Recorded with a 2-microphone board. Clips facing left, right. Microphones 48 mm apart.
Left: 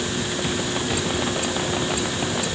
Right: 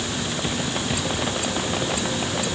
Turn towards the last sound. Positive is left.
No sound to turn to.